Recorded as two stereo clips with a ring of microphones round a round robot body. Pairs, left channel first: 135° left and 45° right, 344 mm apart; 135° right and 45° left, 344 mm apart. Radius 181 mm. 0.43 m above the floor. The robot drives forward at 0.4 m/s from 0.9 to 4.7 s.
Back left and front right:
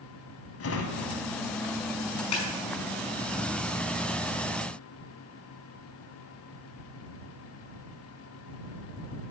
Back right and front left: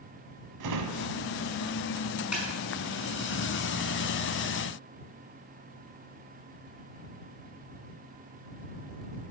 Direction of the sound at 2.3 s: 130° left.